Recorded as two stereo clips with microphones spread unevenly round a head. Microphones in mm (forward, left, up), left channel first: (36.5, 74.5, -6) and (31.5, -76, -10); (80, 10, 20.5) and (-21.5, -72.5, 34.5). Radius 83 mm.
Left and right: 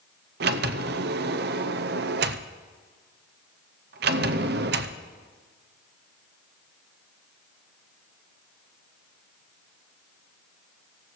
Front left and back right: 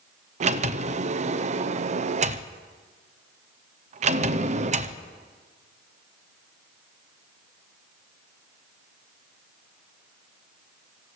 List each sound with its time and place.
0.4 s a sliding door: 110° right, 0.6 m